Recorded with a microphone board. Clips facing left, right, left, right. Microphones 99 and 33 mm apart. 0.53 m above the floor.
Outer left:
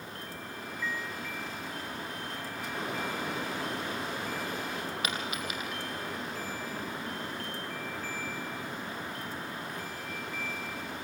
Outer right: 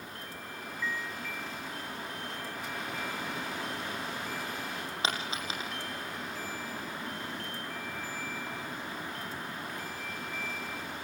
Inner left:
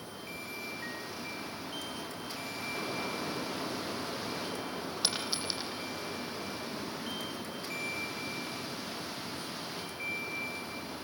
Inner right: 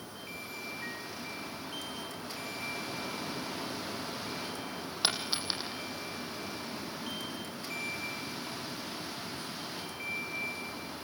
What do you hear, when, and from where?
5.0 s a dropped coin: 30° right (ahead or behind), 6.5 m